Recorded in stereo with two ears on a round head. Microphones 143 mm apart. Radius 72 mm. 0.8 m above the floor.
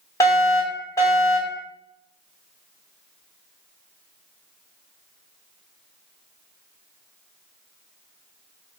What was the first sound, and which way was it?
A fire alarm, 20° left (ahead or behind).